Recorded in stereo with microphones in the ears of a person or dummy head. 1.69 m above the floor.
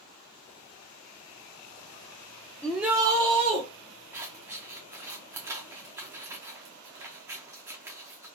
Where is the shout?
5° left (ahead or behind), 0.6 m; by 3.6 s 30° right (ahead or behind), 1.2 m.